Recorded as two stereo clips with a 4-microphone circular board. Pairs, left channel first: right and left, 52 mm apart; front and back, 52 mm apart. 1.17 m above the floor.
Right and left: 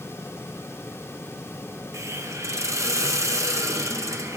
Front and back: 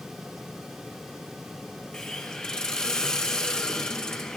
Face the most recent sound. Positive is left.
turn(degrees=75)